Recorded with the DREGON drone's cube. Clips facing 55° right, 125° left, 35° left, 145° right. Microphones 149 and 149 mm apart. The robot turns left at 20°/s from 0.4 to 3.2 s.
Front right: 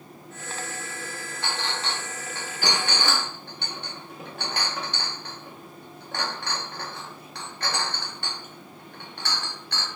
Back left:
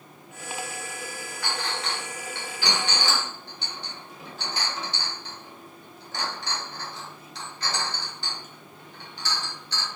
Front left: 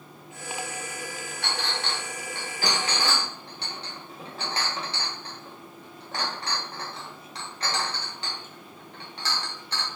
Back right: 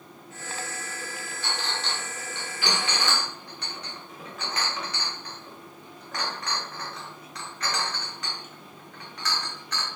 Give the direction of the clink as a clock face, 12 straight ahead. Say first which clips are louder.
Even, front left 1 dB; 12 o'clock.